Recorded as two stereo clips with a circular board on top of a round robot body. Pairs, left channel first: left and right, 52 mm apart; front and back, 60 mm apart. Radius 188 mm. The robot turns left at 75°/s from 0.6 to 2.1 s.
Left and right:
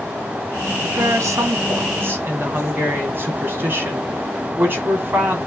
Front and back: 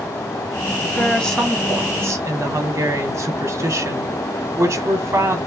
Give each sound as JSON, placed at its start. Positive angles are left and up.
{"t": 0.8, "sound": "a woman speaking", "azimuth_deg": -50, "distance_m": 2.5}